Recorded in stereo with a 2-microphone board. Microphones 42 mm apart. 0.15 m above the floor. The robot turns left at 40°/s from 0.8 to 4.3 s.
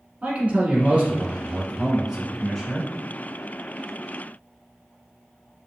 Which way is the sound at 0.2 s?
110° right.